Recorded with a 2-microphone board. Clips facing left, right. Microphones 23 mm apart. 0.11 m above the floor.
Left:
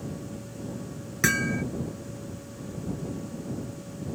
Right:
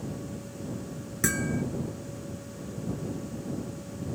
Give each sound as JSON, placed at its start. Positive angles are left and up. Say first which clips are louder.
{"t": 1.2, "sound": "hammering", "louder": "left 4 dB", "side_deg": 40}